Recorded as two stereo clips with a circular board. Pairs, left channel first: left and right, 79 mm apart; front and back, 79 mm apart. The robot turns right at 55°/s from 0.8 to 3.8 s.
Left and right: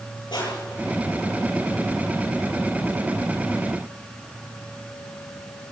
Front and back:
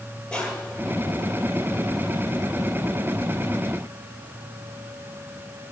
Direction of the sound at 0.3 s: 80° left.